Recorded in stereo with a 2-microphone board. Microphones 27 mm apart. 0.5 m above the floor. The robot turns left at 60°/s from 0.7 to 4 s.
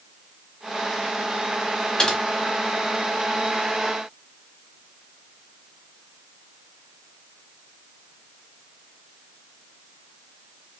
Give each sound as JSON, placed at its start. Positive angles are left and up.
{"t": 2.0, "sound": "typing on a keyboard", "side_deg": 35, "distance_m": 1.2}